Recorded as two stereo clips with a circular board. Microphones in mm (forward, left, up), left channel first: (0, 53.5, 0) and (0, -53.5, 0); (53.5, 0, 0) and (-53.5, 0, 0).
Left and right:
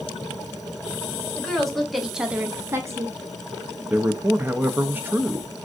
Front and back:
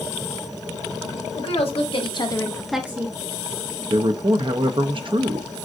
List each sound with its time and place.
1.4 s a woman speaking: 5° left, 1.5 m; by 3.2 s 145° right, 0.8 m
3.9 s a man speaking: 160° right, 0.6 m